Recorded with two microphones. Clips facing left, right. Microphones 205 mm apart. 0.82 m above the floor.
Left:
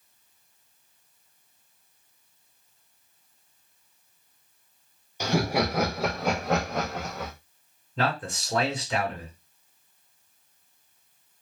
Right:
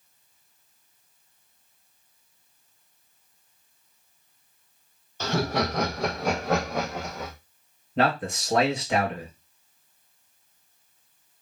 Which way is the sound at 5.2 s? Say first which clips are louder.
Left 1 dB; 15° left (ahead or behind).